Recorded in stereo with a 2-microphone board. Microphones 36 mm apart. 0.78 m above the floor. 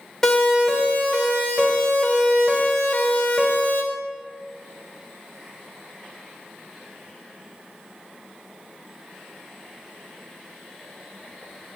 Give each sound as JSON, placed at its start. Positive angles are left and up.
{"t": 0.2, "sound": "a siren", "side_deg": 5, "distance_m": 5.0}